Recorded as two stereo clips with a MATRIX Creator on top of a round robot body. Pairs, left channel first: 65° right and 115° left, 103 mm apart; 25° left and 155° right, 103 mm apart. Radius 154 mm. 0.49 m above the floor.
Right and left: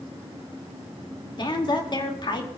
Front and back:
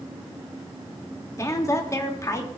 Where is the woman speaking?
35° right, 2.5 m.